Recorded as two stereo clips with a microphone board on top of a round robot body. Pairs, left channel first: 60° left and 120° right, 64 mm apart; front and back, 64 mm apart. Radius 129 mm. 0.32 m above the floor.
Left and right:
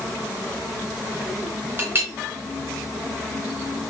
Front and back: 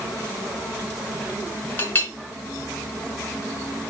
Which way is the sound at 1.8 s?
60° right.